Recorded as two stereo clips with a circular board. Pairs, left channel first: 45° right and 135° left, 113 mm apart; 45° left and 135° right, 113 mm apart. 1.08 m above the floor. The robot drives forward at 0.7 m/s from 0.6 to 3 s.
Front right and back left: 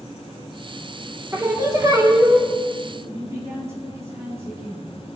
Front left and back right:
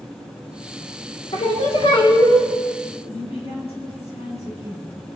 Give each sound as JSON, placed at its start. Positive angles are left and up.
{"t": 1.3, "sound": "singing", "azimuth_deg": 70, "distance_m": 2.5}
{"t": 3.1, "sound": "a woman speaking", "azimuth_deg": 70, "distance_m": 7.5}